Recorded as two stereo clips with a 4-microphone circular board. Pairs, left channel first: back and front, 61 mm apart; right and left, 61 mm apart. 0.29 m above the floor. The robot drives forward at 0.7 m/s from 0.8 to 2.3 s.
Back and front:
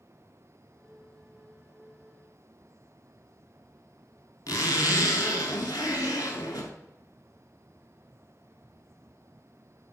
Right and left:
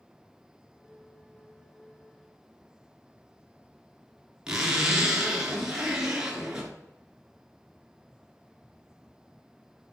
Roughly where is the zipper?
Behind.